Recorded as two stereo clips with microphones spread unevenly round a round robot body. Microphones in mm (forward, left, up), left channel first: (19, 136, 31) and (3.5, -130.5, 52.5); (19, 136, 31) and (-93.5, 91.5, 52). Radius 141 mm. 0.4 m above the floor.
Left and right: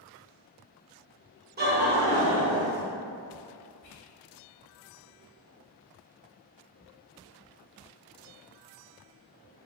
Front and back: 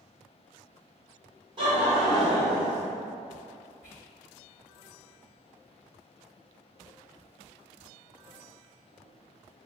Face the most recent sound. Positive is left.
turn(degrees=110)